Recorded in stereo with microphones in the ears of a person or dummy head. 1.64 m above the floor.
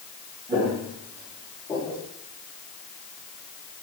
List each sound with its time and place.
0.5 s footsteps: 25° right (ahead or behind), 2.5 m; by 2.0 s 10° left (ahead or behind), 3 m